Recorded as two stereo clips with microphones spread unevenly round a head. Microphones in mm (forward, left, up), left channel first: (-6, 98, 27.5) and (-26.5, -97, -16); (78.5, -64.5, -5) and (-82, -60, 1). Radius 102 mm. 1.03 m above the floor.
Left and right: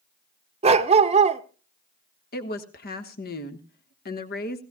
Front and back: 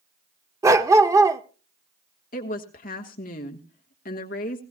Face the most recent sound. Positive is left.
turn(degrees=35)